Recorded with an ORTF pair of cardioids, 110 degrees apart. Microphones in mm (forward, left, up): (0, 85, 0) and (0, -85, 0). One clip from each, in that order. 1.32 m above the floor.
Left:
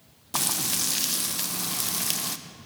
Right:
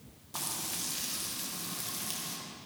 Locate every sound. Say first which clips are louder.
0.3 s frying: left 10 dB; 55° left, 0.6 m